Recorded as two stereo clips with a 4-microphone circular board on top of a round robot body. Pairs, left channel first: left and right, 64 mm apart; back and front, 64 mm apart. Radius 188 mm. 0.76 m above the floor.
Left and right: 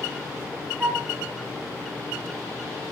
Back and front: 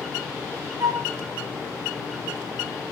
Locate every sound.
0.8 s a flute: 25° right, 0.6 m